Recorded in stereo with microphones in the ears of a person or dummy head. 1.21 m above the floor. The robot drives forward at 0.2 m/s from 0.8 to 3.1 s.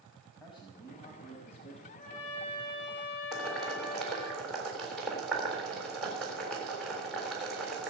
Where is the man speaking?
25° left (ahead or behind), 2 m.